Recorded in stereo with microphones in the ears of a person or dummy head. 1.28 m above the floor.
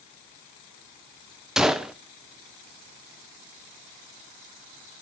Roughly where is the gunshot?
Centre.